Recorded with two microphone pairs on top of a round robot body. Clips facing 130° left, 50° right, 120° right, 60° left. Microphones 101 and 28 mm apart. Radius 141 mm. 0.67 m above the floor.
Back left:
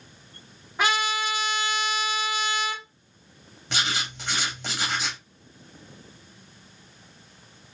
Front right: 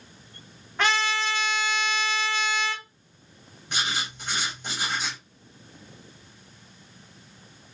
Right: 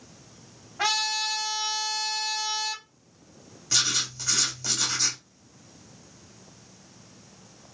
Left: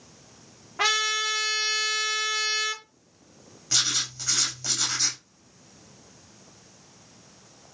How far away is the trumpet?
About 1.2 m.